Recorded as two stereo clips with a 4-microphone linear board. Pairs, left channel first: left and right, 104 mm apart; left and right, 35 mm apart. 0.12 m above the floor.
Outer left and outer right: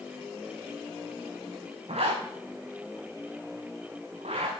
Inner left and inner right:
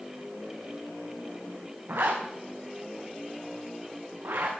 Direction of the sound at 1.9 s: 85° right.